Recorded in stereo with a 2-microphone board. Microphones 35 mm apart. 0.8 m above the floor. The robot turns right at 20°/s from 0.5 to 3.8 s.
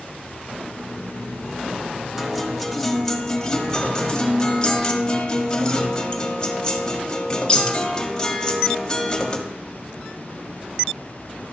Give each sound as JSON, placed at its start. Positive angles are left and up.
{"t": 2.2, "sound": "a guitar", "azimuth_deg": -5, "distance_m": 1.5}